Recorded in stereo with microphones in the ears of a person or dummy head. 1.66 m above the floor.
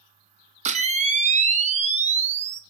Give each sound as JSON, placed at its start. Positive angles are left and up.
{"t": 0.7, "sound": "a camera shutter", "side_deg": -35, "distance_m": 1.4}